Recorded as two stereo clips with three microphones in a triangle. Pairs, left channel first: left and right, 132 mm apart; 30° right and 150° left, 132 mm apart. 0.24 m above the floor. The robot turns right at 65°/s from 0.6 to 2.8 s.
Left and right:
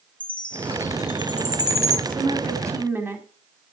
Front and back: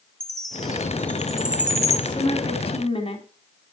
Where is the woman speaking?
70° right, 2.0 m; by 3.3 s 20° right, 2.0 m.